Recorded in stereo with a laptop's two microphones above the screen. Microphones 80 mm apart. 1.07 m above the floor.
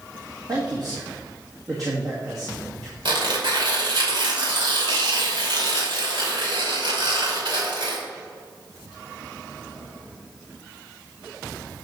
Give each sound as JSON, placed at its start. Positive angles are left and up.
{"t": 0.5, "sound": "a man speaking", "side_deg": -45, "distance_m": 1.6}
{"t": 3.0, "sound": "tearing paper", "side_deg": -75, "distance_m": 2.5}